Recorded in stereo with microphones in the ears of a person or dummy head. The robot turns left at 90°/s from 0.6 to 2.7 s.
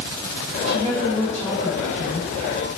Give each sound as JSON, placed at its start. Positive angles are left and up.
{"t": 0.7, "sound": "a woman speaking", "azimuth_deg": -130, "distance_m": 4.0}